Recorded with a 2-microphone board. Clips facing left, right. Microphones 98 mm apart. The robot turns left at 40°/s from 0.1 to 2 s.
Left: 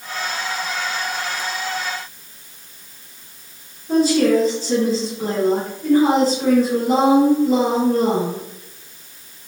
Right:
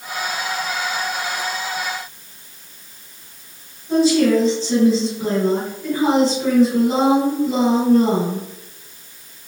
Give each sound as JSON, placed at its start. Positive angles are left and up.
{"t": 3.9, "sound": "a woman speaking", "side_deg": 40, "distance_m": 2.0}